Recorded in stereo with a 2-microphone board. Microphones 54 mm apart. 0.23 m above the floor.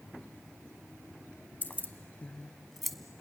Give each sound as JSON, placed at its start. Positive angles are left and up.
{"t": 1.6, "sound": "keys jangling", "side_deg": 35, "distance_m": 1.1}